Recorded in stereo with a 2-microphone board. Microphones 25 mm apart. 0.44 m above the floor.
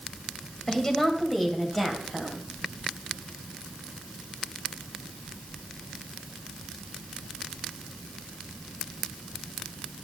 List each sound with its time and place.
0.7 s a woman speaking: 20° left (ahead or behind), 2.5 m; by 2.5 s 5° right (ahead or behind), 3 m